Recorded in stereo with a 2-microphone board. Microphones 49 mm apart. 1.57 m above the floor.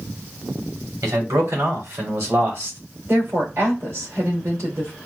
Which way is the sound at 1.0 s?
75° right (ahead or behind).